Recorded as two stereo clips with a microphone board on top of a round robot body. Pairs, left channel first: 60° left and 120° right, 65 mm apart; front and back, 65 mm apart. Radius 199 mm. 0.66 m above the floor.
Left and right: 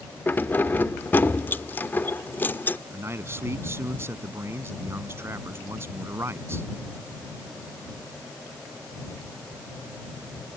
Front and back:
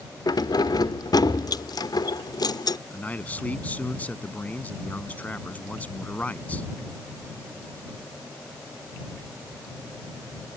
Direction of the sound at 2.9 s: 70° right.